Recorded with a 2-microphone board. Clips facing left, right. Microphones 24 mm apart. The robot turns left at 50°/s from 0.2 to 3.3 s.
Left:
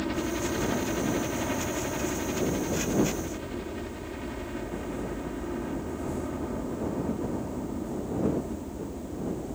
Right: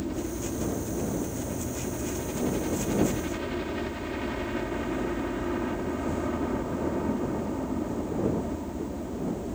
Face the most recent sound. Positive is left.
turn(degrees=-25)